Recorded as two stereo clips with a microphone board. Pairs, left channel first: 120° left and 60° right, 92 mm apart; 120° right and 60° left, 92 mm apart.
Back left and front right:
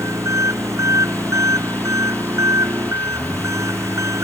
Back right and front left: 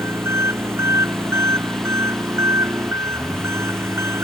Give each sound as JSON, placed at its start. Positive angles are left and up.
{"t": 0.0, "sound": "an engine running", "azimuth_deg": 0}